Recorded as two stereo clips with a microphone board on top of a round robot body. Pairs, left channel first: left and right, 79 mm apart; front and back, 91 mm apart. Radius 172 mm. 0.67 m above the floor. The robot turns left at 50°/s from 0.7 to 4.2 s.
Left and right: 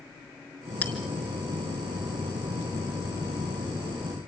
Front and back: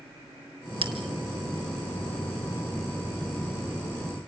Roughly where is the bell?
Behind.